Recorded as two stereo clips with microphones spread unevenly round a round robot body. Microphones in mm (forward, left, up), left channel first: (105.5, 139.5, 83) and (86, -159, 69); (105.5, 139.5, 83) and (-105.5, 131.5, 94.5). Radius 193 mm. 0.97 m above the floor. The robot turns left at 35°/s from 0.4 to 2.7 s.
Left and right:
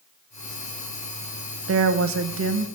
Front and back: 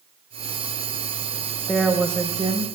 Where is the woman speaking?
85° right, 0.7 m; by 2.7 s 120° right, 0.7 m.